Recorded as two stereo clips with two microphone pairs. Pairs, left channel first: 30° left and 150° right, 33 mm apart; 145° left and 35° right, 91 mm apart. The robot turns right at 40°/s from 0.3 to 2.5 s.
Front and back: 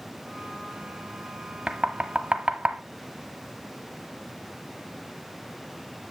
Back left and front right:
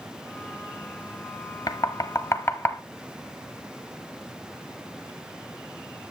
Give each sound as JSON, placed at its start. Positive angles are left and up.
{"t": 1.7, "sound": "knocking", "azimuth_deg": 160, "distance_m": 1.1}